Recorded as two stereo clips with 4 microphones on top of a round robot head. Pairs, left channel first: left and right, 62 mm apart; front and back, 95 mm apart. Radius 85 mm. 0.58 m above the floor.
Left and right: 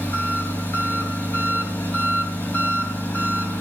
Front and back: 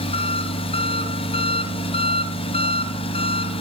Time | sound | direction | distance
0.0 | an engine running | 20° left | 2.5 m